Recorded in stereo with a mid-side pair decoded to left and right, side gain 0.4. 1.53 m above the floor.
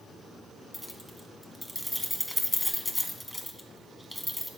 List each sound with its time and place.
0.7 s keys jangling: 5° left, 1.2 m